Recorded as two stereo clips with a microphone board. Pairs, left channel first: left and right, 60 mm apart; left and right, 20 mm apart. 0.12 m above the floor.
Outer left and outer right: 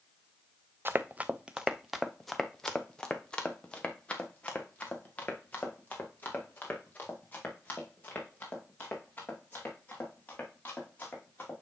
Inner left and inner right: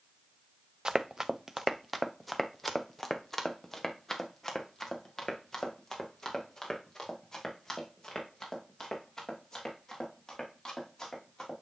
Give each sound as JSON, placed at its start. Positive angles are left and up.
{"t": 0.8, "sound": "running footsteps", "side_deg": -40, "distance_m": 0.7}